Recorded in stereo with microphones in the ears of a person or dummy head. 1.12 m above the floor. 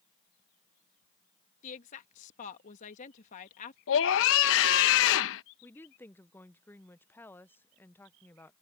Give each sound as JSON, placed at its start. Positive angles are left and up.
{"t": 1.6, "sound": "a woman speaking", "side_deg": 40}
{"t": 3.9, "sound": "a scream", "side_deg": 70}
{"t": 5.6, "sound": "a woman speaking", "side_deg": 10}